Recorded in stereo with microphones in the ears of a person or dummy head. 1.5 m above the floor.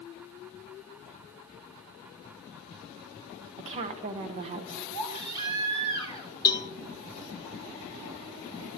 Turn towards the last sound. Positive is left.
turn(degrees=25)  # may be behind; listen again after turning